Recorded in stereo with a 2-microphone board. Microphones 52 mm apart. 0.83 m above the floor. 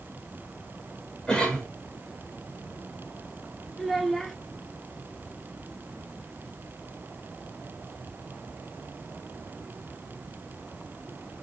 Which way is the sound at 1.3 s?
15° left (ahead or behind).